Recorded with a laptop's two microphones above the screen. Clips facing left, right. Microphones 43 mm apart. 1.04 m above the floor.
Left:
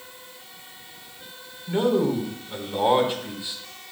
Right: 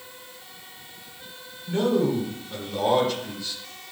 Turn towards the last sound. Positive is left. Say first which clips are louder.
# left 1 dB
turn(degrees=25)  # may be behind; listen again after turning